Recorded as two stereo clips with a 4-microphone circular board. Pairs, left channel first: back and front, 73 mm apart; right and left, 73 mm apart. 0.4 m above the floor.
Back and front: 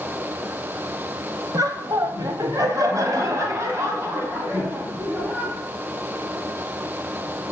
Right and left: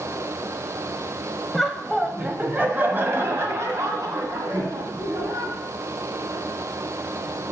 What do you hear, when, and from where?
1.5 s laughter: 5° right, 1.8 m; by 5.5 s 60° left, 3.5 m